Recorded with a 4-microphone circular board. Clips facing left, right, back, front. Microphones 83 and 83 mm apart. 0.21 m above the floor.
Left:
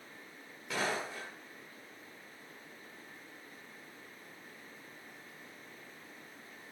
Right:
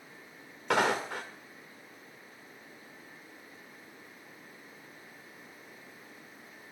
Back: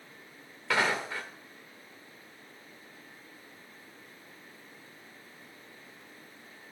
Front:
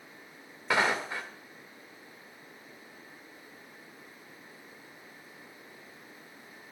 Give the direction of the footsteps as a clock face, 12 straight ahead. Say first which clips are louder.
Right 8 dB, front 1 dB; 2 o'clock.